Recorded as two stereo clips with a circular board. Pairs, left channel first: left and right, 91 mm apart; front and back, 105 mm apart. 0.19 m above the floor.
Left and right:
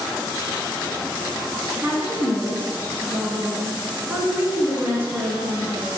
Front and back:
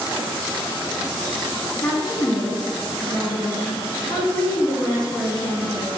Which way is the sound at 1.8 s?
20° right.